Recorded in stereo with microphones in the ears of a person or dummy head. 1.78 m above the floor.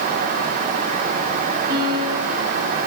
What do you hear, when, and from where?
1.7 s a piano: 55° right (ahead or behind), 8.5 m